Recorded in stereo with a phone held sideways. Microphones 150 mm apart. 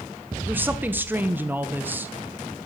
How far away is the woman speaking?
About 0.9 m.